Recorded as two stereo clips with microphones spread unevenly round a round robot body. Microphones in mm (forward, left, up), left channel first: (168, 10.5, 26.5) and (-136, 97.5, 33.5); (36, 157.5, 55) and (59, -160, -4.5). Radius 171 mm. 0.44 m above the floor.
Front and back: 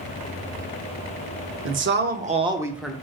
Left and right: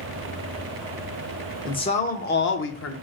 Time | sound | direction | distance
1.6 | a man speaking | straight behind | 0.8 m